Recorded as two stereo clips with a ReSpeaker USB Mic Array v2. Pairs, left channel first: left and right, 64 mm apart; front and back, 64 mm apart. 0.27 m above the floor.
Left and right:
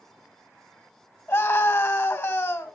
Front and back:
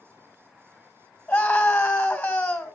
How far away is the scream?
About 2 m.